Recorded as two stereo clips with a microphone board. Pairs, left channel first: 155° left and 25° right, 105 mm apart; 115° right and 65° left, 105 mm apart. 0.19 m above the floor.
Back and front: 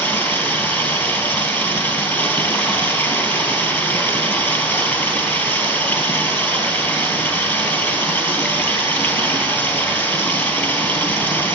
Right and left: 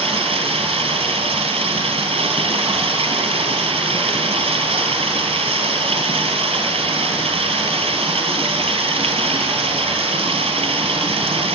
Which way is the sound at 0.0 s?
90° left.